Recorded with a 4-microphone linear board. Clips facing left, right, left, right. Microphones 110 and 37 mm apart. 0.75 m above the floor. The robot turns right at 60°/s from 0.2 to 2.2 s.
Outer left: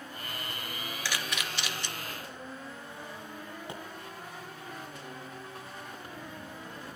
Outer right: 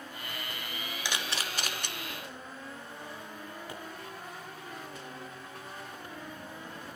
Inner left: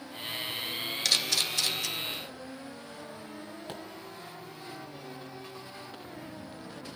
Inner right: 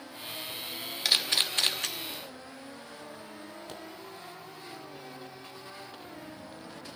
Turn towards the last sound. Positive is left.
turn(degrees=25)  # may be behind; listen again after turning